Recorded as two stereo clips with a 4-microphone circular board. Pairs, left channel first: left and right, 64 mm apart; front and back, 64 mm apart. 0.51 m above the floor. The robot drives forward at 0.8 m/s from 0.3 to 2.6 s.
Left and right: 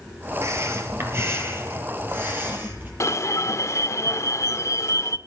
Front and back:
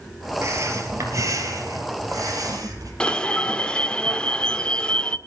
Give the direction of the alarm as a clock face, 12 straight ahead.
10 o'clock.